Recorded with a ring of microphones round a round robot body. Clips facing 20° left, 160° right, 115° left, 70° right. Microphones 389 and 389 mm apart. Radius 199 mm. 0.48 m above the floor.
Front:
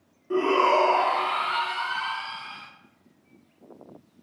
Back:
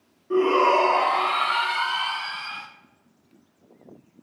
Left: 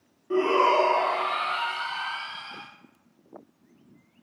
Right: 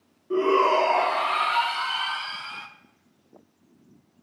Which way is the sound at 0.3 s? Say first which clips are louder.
Back 3 dB, right 2 dB; 75° left.